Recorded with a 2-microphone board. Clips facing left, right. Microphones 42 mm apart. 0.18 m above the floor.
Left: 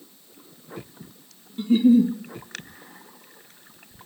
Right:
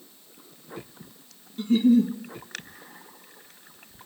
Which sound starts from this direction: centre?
A giggle, at 1.6 s.